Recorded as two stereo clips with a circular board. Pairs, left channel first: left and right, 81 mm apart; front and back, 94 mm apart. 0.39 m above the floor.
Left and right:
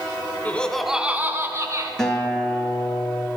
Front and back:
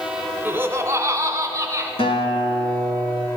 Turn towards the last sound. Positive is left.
turn(degrees=10)